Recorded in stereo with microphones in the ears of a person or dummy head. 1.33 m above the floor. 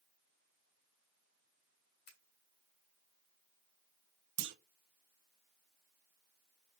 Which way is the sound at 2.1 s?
60° left (ahead or behind).